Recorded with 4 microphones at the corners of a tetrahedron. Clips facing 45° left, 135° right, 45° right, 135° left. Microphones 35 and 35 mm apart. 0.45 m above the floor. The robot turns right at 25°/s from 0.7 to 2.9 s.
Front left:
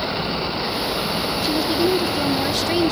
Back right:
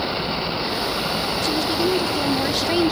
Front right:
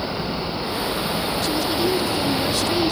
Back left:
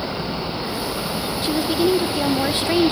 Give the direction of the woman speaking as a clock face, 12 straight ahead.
8 o'clock.